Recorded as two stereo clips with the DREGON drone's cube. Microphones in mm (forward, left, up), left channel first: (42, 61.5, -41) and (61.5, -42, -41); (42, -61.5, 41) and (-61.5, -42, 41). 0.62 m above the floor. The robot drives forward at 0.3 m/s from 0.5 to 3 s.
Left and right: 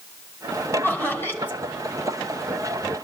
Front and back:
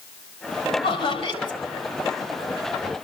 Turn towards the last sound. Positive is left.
turn(degrees=35)